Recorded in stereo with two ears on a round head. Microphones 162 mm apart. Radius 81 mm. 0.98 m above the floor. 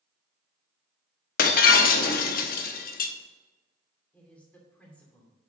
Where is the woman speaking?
10° left (ahead or behind), 2.5 m.